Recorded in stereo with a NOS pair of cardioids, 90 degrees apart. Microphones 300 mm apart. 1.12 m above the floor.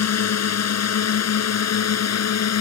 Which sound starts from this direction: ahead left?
A drone, at 0.0 s.